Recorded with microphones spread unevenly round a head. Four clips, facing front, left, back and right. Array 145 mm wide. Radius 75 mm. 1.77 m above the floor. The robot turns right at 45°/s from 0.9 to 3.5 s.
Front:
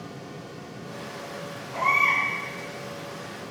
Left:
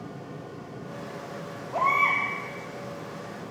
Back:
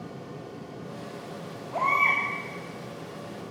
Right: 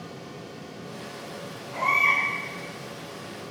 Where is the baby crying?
110° left, 3 m; by 2.2 s 130° left, 3 m.